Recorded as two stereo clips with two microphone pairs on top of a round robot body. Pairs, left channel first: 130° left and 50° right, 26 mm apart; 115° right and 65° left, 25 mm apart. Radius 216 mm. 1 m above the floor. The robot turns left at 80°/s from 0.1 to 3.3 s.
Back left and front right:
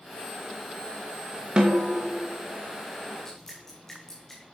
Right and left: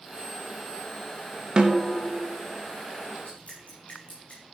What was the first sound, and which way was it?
A snare drum, straight ahead.